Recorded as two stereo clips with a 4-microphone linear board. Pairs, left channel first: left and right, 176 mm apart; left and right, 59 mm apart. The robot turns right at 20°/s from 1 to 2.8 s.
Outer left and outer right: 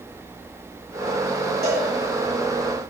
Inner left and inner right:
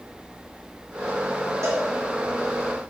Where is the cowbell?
70° right (ahead or behind), 2.5 m; by 1.9 s 65° right (ahead or behind), 2.5 m.